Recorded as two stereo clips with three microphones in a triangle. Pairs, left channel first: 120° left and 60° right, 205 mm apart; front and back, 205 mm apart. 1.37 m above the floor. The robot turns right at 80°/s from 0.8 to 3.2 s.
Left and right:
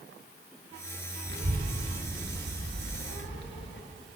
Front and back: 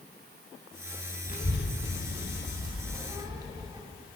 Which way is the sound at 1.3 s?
45° right.